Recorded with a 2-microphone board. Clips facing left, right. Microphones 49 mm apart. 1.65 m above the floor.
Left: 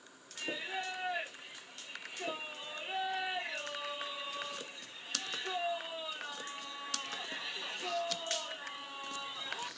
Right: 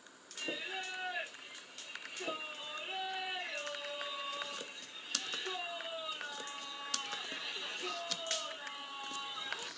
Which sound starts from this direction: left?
Singing, at 0.4 s.